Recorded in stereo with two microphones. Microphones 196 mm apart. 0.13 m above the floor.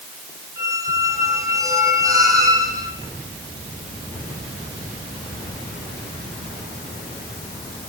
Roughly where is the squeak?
Centre.